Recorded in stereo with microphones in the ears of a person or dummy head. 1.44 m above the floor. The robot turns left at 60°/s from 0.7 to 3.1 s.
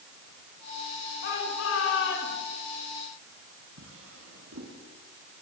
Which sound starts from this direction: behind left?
A shout, at 1.2 s.